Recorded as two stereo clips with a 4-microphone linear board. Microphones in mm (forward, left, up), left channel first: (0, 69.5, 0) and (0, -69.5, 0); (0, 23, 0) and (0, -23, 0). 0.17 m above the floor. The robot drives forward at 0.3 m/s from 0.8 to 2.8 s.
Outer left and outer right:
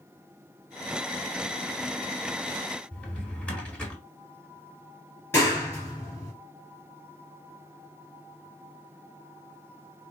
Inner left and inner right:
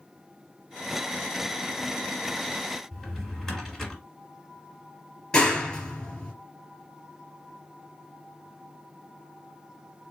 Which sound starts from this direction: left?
A clap, at 5.3 s.